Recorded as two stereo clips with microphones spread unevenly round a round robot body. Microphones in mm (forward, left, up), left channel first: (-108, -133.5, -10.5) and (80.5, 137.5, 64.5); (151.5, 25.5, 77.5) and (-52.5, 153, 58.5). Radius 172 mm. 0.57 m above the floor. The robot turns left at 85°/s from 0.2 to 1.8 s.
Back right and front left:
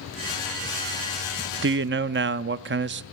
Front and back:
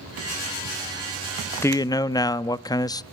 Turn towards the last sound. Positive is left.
turn(degrees=30)